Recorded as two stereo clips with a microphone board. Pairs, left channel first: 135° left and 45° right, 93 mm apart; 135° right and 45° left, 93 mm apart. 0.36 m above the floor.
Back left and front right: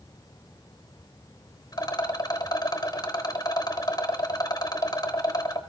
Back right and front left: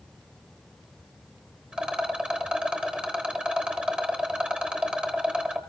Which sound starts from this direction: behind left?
A rattle, at 1.7 s.